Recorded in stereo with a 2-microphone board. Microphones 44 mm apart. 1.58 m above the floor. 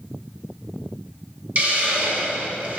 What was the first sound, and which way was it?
A hiss, 35° right (ahead or behind).